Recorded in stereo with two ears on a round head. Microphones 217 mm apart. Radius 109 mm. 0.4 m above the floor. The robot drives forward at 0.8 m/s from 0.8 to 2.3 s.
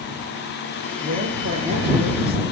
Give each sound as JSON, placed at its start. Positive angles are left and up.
{"t": 1.0, "sound": "a woman speaking", "side_deg": -30, "distance_m": 5.5}